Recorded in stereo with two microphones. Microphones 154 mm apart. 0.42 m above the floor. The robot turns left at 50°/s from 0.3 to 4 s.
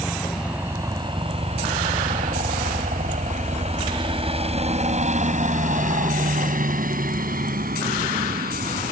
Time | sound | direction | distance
0.0 | a helicopter | 5° right (ahead or behind) | ?